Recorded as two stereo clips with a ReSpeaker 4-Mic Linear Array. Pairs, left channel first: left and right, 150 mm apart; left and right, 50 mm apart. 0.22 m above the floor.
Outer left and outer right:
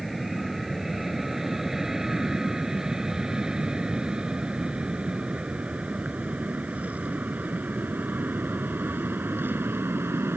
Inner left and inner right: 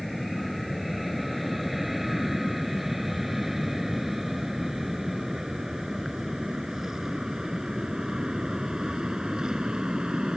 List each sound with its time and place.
0.0 s an aircraft: centre (ahead or behind); by 10.4 s 15° right (ahead or behind)